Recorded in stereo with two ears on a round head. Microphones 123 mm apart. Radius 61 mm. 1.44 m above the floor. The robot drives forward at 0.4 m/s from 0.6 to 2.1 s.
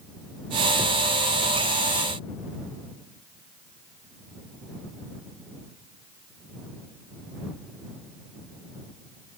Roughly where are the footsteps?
No footsteps in this recording.